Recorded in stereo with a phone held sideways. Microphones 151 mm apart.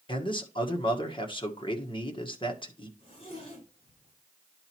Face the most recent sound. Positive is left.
turn(degrees=40)  # may be behind; listen again after turning